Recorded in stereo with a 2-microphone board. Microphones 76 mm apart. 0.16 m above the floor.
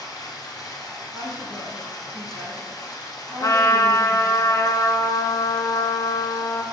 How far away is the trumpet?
About 0.6 m.